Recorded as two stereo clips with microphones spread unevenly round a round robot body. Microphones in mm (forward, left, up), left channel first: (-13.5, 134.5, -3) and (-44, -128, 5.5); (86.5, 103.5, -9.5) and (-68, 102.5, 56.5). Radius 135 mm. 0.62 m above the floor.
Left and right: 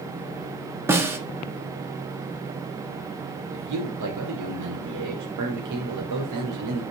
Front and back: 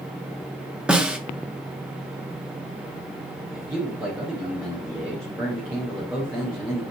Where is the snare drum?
25° right, 1.2 m.